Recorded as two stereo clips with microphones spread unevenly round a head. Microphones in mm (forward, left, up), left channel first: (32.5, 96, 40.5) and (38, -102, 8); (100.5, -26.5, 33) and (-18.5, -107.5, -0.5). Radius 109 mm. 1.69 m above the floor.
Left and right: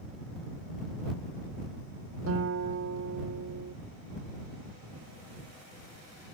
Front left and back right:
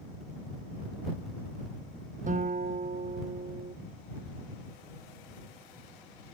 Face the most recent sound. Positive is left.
turn(degrees=-110)